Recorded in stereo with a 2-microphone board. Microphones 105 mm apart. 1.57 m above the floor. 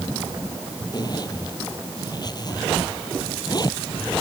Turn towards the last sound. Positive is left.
turn(degrees=40)  # may be behind; listen again after turning